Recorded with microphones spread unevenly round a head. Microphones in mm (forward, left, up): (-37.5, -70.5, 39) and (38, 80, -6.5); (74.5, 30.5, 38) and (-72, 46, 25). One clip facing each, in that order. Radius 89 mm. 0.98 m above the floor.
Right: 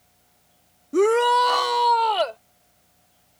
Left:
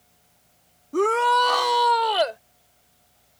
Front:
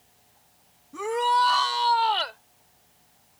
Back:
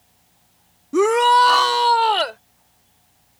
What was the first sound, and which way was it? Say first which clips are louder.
A shout: right 3 dB, back 10 dB; 175° left.